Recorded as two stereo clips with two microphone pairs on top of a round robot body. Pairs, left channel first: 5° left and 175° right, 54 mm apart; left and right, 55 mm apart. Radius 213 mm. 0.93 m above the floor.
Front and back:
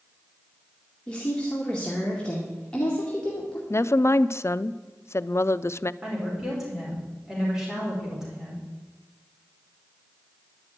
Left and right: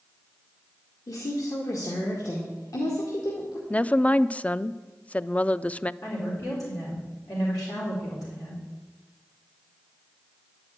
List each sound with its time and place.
1.1 s a woman speaking: 80° left, 2 m
3.7 s a woman speaking: 15° left, 0.6 m
6.0 s a woman speaking: 105° left, 4.5 m